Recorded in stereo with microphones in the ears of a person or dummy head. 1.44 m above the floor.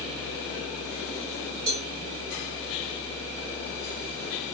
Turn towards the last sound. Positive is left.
turn(degrees=-50)  # may be behind; listen again after turning